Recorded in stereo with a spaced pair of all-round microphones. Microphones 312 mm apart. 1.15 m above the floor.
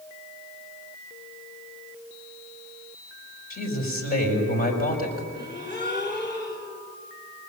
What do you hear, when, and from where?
3.5 s a man speaking: 30° left (ahead or behind), 6 m
5.3 s a gasp: 35° left (ahead or behind), 3.5 m